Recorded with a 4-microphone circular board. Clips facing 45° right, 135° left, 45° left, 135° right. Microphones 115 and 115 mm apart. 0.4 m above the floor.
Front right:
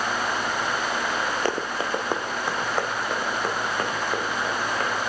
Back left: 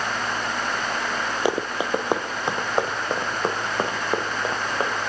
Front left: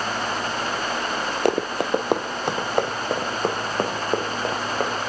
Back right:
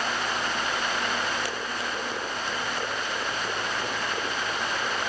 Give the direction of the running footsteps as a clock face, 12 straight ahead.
10 o'clock.